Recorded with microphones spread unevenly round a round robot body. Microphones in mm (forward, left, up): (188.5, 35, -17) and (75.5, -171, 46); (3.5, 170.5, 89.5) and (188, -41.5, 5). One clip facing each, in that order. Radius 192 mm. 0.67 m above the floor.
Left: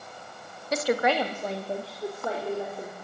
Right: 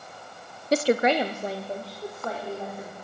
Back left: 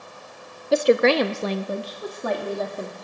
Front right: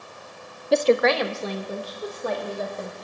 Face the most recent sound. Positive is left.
turn(degrees=130)